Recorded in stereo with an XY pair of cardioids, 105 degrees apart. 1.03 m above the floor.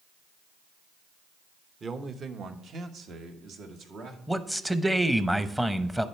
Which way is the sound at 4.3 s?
5° right.